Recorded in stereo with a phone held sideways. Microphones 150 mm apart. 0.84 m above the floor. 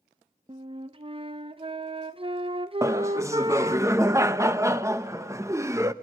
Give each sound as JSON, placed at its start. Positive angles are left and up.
{"t": 0.5, "sound": "a flute", "side_deg": -40, "distance_m": 0.6}
{"t": 2.8, "sound": "laughter", "side_deg": -20, "distance_m": 0.6}